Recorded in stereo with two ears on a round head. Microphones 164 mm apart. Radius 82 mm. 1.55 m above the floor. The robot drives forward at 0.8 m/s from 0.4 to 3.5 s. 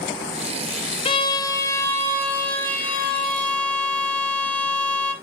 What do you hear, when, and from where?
1.1 s a violin: 30° left (ahead or behind), 0.6 m; by 5.1 s 5° left (ahead or behind), 2.5 m